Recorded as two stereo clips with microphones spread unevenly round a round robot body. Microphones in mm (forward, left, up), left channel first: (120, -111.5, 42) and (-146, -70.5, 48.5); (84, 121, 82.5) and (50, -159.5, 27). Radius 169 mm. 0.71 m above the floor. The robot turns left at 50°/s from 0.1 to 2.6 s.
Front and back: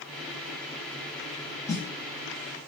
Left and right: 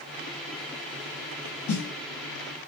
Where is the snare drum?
70° left, 1.3 m; by 1.9 s 55° left, 1.3 m.